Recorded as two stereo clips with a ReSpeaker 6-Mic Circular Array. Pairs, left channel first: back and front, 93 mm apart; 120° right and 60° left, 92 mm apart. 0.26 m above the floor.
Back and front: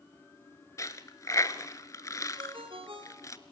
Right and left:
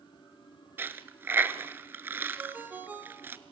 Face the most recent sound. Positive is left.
turn(degrees=-10)